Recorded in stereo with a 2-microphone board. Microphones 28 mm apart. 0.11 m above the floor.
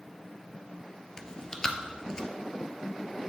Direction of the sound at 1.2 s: 25° left (ahead or behind).